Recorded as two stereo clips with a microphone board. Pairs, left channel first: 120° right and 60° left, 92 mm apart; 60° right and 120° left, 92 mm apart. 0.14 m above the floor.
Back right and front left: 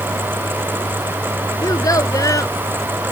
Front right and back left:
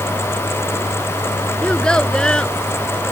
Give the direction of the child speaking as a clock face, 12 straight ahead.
5 o'clock.